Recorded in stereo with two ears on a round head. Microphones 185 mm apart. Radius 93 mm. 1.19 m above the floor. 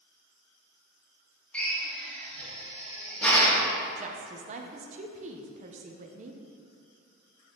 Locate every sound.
1.5 s a drill: 5° left (ahead or behind), 1.0 m
4.0 s a woman speaking: 35° right (ahead or behind), 0.5 m